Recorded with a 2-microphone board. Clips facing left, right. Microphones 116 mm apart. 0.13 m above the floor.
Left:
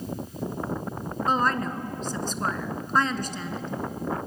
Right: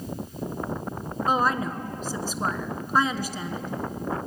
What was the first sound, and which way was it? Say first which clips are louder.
A woman speaking: right 1 dB; 10° right (ahead or behind).